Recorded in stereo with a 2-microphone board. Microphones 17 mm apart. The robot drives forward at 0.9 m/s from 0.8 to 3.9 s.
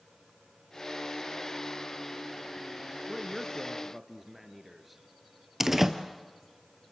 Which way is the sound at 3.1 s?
15° right (ahead or behind).